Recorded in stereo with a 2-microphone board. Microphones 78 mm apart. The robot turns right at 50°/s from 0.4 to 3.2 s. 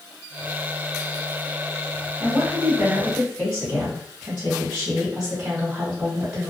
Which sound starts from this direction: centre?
A woman speaking, at 2.2 s.